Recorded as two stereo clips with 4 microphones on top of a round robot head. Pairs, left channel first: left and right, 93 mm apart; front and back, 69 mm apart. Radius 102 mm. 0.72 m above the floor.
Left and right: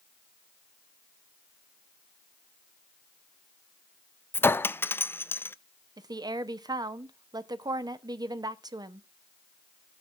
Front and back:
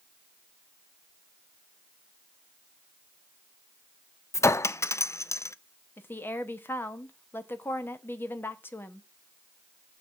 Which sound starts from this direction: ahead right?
A woman speaking, at 6.0 s.